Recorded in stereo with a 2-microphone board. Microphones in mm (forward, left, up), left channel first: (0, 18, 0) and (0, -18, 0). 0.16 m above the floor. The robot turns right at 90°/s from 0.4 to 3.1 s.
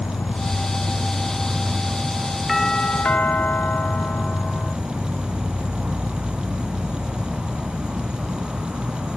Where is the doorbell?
Straight ahead; by 4.8 s 55° left.